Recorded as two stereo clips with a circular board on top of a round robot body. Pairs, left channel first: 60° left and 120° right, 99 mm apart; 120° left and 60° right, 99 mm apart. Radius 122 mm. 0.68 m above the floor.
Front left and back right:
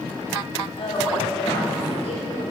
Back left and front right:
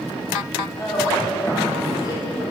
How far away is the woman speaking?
About 2.5 m.